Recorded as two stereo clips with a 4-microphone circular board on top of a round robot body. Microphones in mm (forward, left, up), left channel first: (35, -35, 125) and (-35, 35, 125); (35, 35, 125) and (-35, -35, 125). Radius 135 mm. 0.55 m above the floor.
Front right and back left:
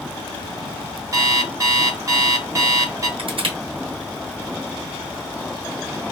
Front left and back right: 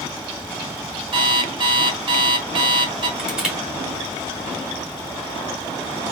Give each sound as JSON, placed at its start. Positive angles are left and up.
{"t": 1.1, "sound": "an alarm clock", "azimuth_deg": -170, "distance_m": 1.1}
{"t": 3.2, "sound": "crushing", "azimuth_deg": 145, "distance_m": 1.8}